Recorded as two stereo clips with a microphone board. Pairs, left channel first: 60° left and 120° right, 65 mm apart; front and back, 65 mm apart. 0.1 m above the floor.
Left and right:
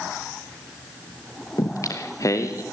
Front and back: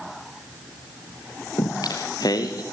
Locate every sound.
1.6 s singing: 20° left, 3 m